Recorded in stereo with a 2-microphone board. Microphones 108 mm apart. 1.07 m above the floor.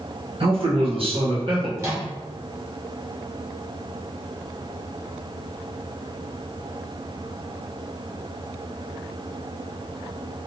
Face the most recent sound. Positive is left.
turn(degrees=-25)  # may be behind; listen again after turning